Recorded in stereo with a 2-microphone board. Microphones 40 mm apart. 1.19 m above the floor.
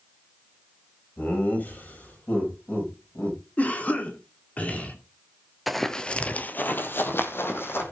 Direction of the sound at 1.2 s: 50° left (ahead or behind).